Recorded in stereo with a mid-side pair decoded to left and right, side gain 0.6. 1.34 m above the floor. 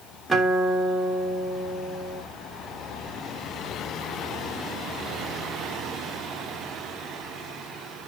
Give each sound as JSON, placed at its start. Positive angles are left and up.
{"t": 0.3, "sound": "a guitar", "azimuth_deg": -5, "distance_m": 3.0}